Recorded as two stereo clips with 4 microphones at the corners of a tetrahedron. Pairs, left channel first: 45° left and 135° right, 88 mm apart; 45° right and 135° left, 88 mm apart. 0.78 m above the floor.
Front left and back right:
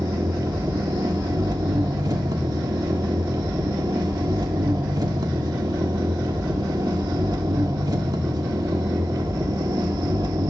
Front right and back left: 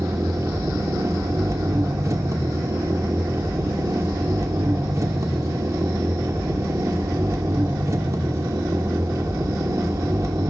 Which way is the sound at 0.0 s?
175° right.